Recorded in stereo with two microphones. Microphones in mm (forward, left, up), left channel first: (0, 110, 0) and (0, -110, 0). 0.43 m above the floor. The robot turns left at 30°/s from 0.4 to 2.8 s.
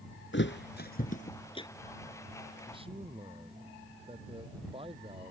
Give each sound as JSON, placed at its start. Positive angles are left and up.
{"t": 0.3, "sound": "a thud", "side_deg": 60}
{"t": 2.7, "sound": "a man speaking", "side_deg": -20}